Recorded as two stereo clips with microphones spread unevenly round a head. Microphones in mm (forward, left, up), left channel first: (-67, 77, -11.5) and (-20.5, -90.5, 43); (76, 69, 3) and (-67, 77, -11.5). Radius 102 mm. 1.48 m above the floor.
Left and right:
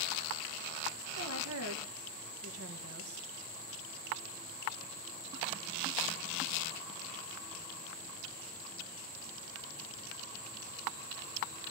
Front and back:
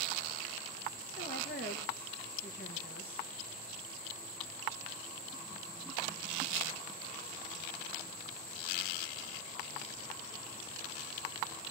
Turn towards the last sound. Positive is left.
turn(degrees=-55)